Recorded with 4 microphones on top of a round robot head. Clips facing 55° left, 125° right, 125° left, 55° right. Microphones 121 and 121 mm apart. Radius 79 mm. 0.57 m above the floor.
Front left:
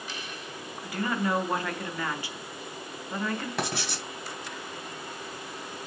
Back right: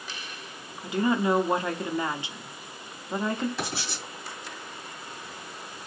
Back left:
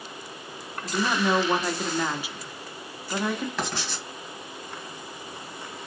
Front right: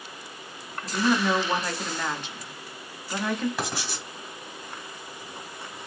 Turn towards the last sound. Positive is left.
turn(degrees=25)